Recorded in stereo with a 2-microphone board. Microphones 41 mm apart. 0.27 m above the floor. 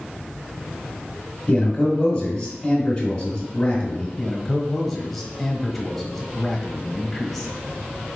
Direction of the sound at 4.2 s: 5° left (ahead or behind).